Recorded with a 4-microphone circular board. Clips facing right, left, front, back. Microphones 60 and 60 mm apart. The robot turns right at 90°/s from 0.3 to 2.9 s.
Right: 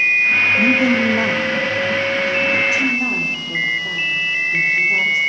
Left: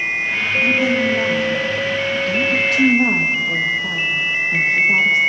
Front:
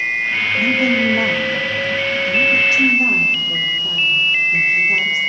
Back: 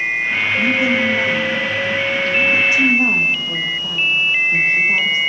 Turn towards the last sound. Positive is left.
turn(degrees=130)